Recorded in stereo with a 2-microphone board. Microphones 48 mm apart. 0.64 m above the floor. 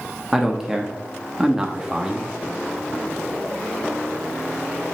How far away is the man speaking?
About 0.8 m.